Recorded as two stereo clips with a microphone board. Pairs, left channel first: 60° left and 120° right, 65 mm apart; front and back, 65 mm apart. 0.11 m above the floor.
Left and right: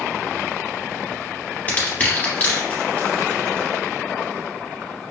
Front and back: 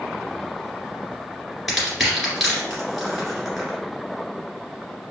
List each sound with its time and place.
1.7 s crushing: 95° left, 1.9 m